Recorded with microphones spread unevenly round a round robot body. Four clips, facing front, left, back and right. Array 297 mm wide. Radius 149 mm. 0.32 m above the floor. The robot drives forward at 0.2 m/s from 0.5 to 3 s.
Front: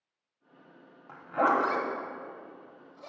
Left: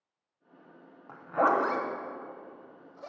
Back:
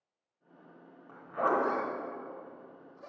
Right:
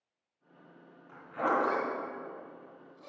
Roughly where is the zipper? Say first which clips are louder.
Left 5 dB, front 4 dB; ahead left.